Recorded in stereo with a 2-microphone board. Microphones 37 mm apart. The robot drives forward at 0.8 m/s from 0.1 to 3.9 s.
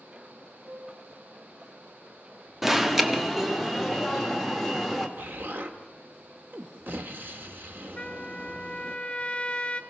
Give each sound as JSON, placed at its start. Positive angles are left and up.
{"t": 0.6, "sound": "a piano", "side_deg": -45, "distance_m": 3.0}
{"t": 2.6, "sound": "an alarm", "side_deg": -10, "distance_m": 1.1}
{"t": 5.2, "sound": "an explosion", "side_deg": -65, "distance_m": 1.5}
{"t": 8.0, "sound": "a trumpet", "side_deg": 30, "distance_m": 1.0}